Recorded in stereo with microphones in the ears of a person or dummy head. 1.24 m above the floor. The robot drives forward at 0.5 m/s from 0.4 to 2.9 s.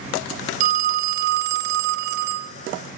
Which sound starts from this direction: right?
A phone ringing, at 0.6 s.